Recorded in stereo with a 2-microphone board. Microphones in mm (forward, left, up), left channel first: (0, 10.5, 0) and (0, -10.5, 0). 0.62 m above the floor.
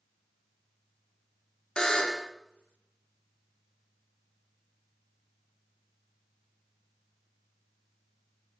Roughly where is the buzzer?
Left.